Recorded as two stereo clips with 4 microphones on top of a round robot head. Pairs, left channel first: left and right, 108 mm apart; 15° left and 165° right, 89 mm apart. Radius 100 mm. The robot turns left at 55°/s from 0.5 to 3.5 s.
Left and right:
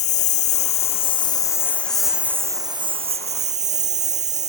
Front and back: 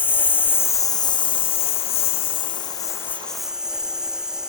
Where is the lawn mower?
85° left; by 4.5 s 80° right.